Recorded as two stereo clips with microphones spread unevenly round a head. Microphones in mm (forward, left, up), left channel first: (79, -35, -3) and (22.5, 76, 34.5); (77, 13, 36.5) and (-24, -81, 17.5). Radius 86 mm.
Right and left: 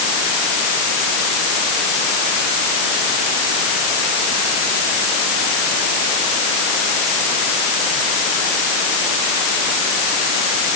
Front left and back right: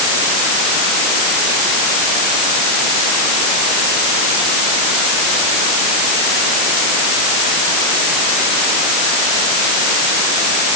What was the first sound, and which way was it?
Only background noise.